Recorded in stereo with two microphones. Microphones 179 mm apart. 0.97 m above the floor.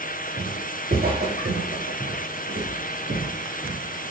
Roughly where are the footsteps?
Right.